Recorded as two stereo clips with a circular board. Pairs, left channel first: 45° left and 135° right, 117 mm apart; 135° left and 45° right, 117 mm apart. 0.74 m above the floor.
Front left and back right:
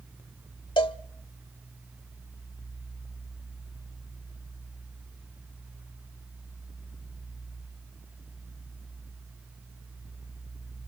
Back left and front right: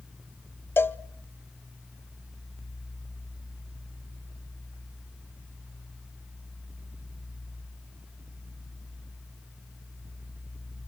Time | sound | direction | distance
0.8 | a cowbell | 70° left | 0.6 m